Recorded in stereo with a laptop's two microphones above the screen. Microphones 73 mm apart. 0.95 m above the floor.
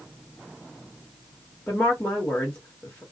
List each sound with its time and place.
1.7 s a woman speaking: 15° left (ahead or behind), 1.3 m